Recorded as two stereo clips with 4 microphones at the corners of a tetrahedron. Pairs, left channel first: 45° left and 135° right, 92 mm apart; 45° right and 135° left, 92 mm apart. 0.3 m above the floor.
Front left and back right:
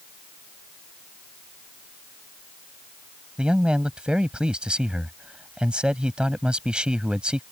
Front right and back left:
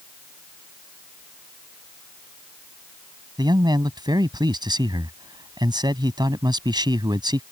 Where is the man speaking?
150° left.